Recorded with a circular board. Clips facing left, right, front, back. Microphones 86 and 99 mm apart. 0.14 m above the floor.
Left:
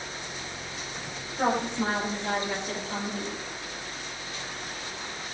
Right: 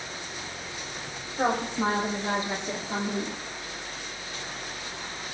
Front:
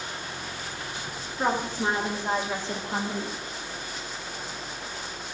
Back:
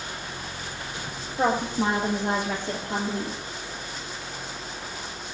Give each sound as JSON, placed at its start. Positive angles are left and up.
{"t": 1.4, "sound": "a woman speaking", "azimuth_deg": -165, "distance_m": 5.5}